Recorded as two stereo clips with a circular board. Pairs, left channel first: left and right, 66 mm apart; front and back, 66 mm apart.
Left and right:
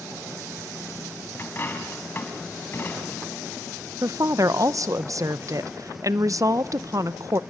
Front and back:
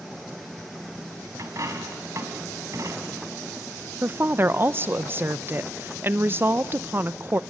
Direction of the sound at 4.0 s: 125° right.